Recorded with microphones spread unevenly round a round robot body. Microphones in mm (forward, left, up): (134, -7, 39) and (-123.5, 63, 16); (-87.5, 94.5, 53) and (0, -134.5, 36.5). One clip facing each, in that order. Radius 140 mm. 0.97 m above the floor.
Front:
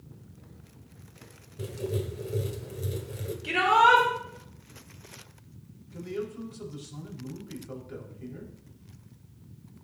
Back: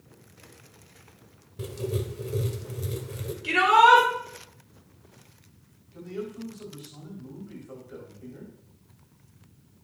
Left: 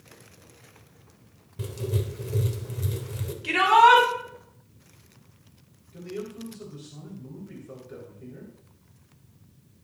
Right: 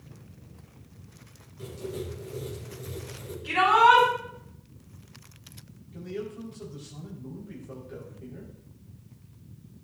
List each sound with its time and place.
1.6 s writing: 80° left, 1.5 m
3.4 s a shout: 85° left, 3.5 m
5.9 s a man speaking: 25° left, 4.5 m